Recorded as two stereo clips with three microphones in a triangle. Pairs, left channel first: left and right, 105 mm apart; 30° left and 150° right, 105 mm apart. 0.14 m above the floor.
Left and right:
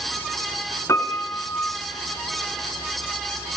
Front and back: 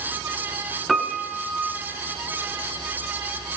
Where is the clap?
No clap in this recording.